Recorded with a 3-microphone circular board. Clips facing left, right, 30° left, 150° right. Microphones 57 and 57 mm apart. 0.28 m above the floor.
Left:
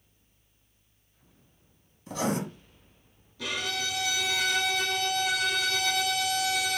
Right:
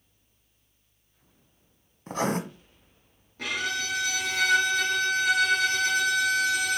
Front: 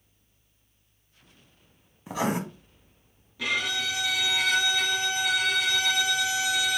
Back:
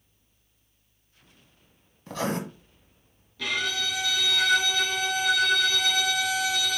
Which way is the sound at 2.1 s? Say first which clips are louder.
Right 2 dB, front 2 dB; 45° right.